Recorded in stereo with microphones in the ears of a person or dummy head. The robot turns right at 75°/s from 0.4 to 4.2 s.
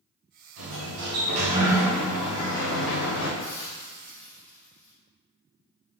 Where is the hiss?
110° left, 0.9 m; by 4.9 s 170° left, 0.9 m.